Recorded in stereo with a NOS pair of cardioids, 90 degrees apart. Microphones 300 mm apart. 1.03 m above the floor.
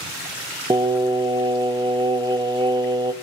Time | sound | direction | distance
0.7 | singing | 15° right | 1.0 m